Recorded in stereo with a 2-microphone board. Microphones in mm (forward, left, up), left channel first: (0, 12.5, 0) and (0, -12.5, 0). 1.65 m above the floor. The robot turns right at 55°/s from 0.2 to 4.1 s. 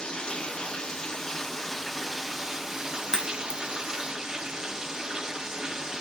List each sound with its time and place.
0.0 s running water: 90° left, 1.2 m; by 6.0 s 55° right, 1.2 m
3.1 s a crack: 20° left (ahead or behind), 2.5 m; by 3.6 s 50° left (ahead or behind), 2.5 m